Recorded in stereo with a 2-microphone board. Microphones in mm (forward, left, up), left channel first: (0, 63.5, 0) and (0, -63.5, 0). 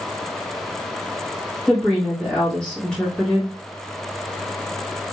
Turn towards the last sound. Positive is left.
turn(degrees=5)  # may be behind; listen again after turning